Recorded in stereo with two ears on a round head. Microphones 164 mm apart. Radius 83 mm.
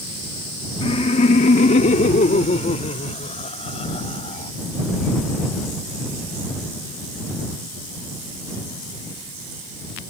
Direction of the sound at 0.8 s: 30° left (ahead or behind).